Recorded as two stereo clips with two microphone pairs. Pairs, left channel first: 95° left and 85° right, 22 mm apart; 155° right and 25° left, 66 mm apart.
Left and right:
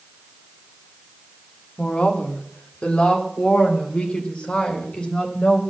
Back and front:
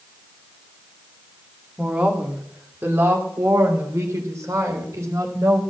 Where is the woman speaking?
95° left, 2 m; by 5.6 s 70° left, 4.5 m.